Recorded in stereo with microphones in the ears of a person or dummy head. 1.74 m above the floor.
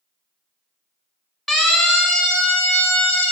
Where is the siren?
Centre (ahead or behind), 2 m; by 3.3 s 10° left (ahead or behind), 4 m.